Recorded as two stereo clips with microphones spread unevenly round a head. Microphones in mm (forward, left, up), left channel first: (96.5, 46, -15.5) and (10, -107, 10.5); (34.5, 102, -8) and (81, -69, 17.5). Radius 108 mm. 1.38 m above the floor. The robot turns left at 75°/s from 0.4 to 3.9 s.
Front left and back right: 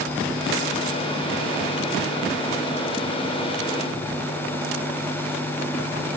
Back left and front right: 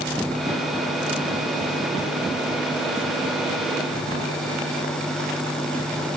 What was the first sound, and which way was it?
Only background noise.